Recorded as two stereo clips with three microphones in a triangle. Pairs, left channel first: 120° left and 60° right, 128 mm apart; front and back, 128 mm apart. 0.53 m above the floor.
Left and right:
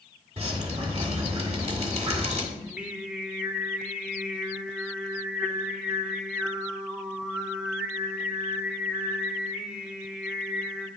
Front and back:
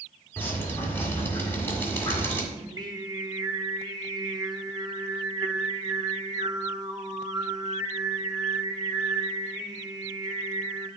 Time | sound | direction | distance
0.4 | dripping | 65° right | 1.8 m
2.5 | singing | 140° right | 0.6 m